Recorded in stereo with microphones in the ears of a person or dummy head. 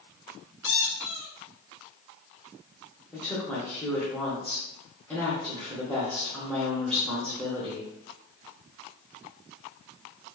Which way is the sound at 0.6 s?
55° left (ahead or behind).